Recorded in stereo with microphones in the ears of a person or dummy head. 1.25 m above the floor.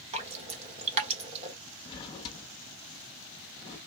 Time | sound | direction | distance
0.1 | dripping | 40° right (ahead or behind) | 1.3 m
1.9 | a drawer | 30° left (ahead or behind) | 0.9 m